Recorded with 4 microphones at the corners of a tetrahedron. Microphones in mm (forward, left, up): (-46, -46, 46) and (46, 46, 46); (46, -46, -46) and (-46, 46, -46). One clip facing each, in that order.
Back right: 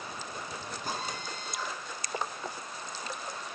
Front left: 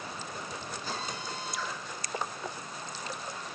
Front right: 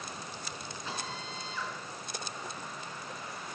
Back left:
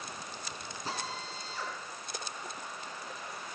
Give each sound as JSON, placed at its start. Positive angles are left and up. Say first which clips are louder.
{"t": 0.8, "sound": "a drill", "louder": "back right 2 dB, back left 2 dB", "azimuth_deg": -175, "distance_m": 6.0}